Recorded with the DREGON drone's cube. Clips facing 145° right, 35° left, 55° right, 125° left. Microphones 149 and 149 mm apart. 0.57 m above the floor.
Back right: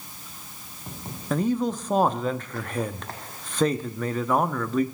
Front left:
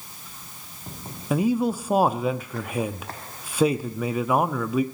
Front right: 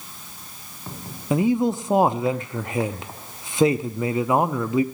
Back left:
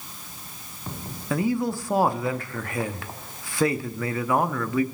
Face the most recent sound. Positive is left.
turn(degrees=-35)